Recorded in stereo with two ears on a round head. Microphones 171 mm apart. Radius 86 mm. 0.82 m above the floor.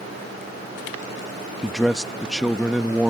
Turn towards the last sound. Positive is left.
turn(degrees=0)  # may be behind; listen again after turning